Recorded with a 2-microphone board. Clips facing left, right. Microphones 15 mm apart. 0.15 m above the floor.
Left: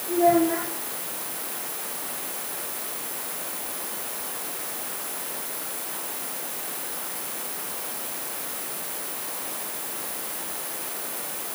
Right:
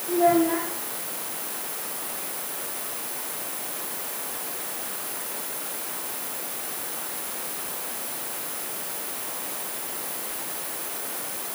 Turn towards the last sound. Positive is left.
turn(degrees=-35)  # may be behind; listen again after turning